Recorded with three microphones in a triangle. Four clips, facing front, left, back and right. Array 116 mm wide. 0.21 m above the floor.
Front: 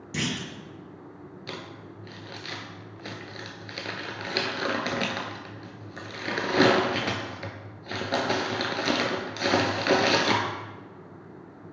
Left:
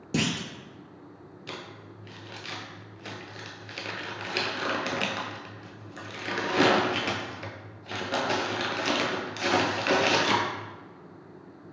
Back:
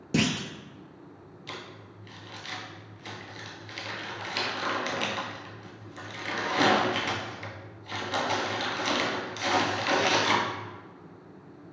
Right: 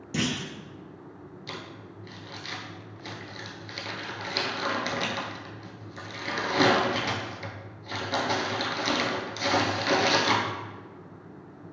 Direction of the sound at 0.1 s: 145° left.